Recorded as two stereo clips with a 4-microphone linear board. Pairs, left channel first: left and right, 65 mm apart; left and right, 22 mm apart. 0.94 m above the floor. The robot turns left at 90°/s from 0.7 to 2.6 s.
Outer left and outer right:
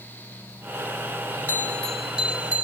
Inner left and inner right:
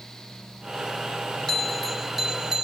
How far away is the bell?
About 0.6 m.